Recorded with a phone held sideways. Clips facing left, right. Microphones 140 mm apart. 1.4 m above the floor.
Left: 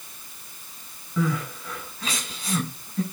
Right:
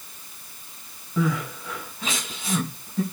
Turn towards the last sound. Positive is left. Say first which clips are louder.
# right 1 dB
turn(degrees=-20)  # may be behind; listen again after turning